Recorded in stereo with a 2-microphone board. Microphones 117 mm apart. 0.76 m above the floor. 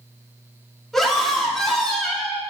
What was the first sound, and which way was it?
A scream, 5° left (ahead or behind).